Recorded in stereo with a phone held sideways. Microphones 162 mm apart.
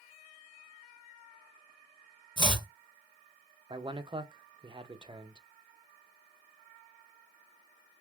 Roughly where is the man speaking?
Right.